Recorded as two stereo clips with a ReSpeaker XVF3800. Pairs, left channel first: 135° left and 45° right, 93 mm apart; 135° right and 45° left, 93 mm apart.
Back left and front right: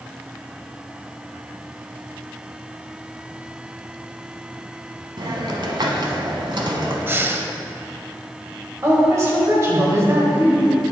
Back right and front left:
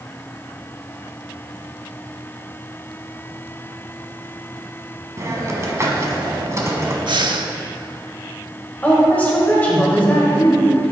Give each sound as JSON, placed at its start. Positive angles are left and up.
{"t": 5.2, "sound": "a hiss", "azimuth_deg": -10, "distance_m": 1.1}
{"t": 7.1, "sound": "breathing", "azimuth_deg": 20, "distance_m": 0.5}
{"t": 8.8, "sound": "a woman speaking", "azimuth_deg": -75, "distance_m": 1.7}